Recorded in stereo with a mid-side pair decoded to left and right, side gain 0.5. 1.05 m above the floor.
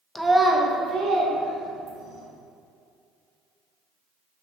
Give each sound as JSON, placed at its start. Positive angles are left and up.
{"t": 0.1, "sound": "a child speaking", "azimuth_deg": 15, "distance_m": 0.6}